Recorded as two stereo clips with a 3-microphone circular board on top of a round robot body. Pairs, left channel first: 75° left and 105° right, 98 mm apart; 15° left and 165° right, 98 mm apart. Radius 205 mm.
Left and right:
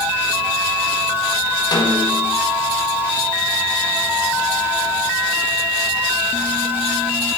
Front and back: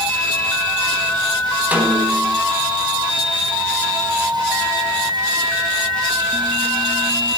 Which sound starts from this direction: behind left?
A snare drum, at 1.7 s.